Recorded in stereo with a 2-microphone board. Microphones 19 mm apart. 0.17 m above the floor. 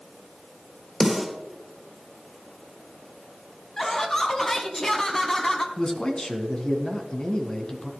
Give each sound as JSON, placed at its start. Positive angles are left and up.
{"t": 1.0, "sound": "a snare drum", "side_deg": -15, "distance_m": 3.5}
{"t": 3.8, "sound": "laughter", "side_deg": 20, "distance_m": 1.0}
{"t": 5.8, "sound": "a man speaking", "side_deg": 35, "distance_m": 1.4}